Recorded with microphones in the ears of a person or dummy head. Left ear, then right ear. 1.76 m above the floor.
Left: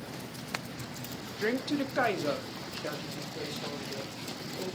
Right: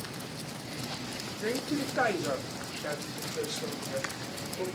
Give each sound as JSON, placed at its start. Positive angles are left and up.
{"t": 1.4, "sound": "a woman speaking", "side_deg": 40, "distance_m": 0.9}